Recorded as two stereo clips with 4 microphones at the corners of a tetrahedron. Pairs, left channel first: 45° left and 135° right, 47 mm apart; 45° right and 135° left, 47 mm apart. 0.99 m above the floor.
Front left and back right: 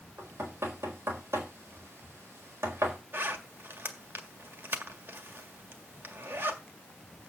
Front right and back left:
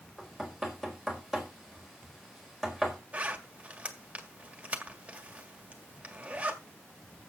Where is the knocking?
135° right, 4.5 m.